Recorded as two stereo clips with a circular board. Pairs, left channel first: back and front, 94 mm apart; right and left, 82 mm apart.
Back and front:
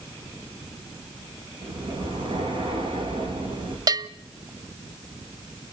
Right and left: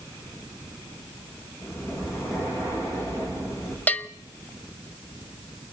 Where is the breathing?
30° right, 8 m.